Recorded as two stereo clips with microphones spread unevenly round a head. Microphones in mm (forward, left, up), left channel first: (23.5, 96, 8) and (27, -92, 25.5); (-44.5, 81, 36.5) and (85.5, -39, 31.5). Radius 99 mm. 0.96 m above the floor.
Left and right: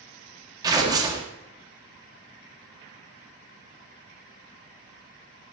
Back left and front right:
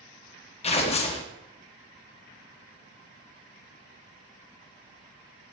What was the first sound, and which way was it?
Tearing paper, 160° right.